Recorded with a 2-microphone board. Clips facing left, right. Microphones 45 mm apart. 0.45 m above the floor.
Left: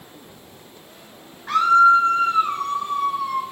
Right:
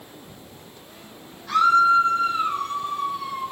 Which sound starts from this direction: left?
A scream, at 1.5 s.